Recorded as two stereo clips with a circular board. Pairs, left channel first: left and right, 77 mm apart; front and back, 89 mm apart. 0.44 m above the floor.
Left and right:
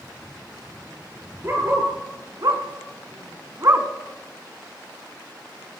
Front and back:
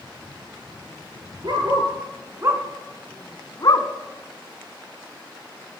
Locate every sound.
1.4 s a dog barking: 145° right, 2.5 m; by 3.9 s 30° right, 1.3 m